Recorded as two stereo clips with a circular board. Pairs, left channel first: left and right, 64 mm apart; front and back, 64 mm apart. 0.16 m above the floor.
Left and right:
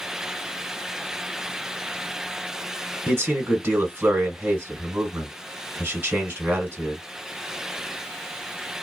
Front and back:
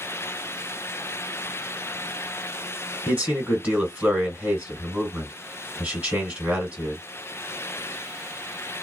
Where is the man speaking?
130° right, 1.4 m.